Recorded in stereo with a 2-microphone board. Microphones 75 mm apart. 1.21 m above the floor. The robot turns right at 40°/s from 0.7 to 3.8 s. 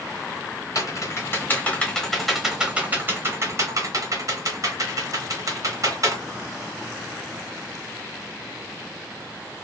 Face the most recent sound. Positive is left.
turn(degrees=-45)  # may be behind; listen again after turning